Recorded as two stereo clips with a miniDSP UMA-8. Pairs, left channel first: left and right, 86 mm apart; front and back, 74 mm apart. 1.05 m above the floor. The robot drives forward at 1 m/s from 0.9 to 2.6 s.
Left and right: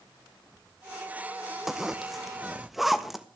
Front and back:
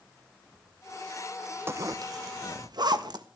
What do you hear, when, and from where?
1.7 s a zipper: 175° right, 0.6 m; by 3.2 s straight behind, 1.4 m